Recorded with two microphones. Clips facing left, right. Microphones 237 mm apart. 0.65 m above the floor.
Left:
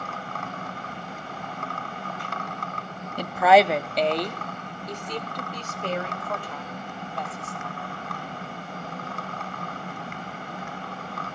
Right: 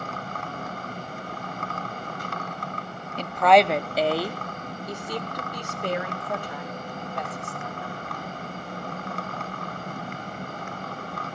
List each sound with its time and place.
3.2 s a woman speaking: 10° left (ahead or behind), 0.6 m; by 8.0 s 15° right (ahead or behind), 3.5 m